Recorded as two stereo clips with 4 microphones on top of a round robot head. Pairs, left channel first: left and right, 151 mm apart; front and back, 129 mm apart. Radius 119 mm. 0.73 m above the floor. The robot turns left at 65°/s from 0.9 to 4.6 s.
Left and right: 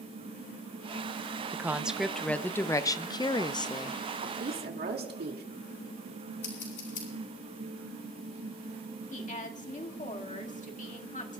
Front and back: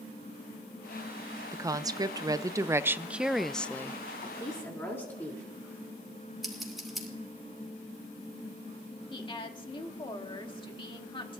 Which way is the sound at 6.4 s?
90° left.